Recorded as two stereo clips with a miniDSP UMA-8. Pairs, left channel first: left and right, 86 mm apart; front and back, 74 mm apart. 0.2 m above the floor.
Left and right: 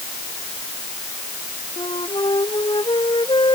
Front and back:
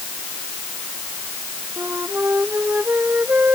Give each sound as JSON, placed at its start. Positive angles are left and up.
{"t": 1.8, "sound": "a flute", "azimuth_deg": 115}